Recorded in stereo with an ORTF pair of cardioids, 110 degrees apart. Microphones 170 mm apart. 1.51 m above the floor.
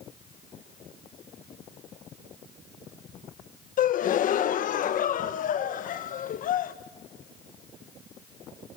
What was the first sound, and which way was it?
A gasp, 55° left.